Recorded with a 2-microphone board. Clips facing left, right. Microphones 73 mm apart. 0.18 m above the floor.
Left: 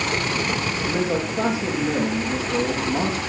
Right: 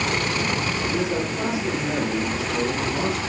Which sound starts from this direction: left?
A man speaking, at 0.8 s.